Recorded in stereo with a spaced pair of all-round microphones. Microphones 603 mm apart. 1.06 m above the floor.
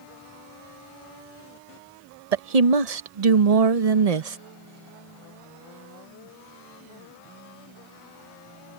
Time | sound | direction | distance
2.3 | a woman speaking | 80° right | ?